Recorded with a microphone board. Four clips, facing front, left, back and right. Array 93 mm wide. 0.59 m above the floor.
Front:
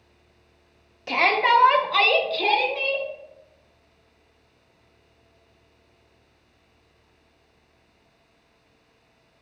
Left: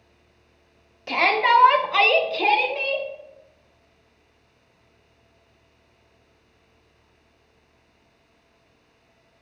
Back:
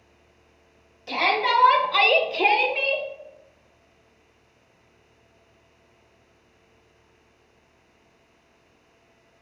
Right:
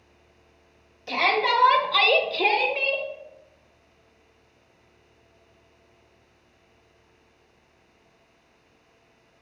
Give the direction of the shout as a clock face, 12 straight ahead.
11 o'clock.